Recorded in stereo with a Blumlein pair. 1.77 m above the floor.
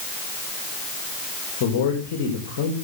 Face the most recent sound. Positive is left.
turn(degrees=45)